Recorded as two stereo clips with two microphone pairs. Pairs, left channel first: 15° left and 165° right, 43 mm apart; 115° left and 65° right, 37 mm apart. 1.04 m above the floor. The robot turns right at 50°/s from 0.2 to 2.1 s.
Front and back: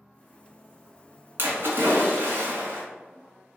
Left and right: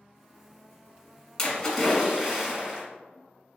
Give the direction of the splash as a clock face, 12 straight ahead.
6 o'clock.